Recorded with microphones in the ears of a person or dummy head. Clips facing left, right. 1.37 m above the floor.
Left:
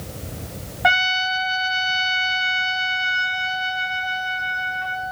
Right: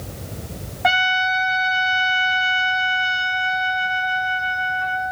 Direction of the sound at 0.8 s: 5° left (ahead or behind).